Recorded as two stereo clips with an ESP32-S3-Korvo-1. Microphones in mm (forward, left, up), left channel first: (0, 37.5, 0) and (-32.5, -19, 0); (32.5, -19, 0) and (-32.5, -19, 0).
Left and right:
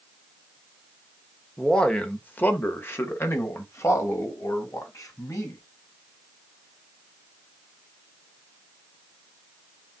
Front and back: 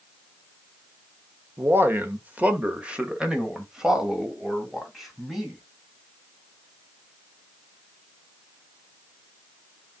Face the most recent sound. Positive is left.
turn(degrees=90)